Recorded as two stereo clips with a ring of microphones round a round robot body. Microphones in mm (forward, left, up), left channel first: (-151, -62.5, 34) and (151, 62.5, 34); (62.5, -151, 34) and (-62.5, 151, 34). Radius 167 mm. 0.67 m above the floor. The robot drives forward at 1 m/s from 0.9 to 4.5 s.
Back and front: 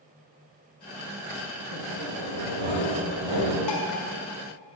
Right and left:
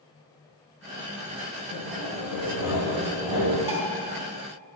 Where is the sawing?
25° left, 5.5 m; by 3.6 s 35° left, 3.5 m.